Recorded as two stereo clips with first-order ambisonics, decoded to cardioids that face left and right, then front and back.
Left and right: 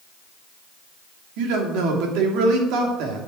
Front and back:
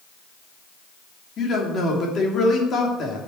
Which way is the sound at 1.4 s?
65° right.